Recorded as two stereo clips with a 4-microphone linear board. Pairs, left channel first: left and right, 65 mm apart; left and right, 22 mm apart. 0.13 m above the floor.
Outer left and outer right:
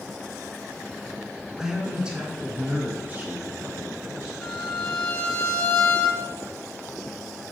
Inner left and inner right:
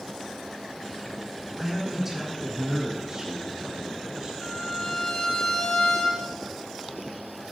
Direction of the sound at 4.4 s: 25° left (ahead or behind).